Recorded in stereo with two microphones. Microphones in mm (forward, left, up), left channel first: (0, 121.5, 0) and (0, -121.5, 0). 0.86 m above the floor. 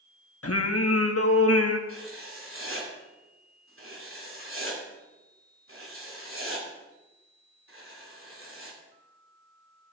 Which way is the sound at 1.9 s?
60° right (ahead or behind).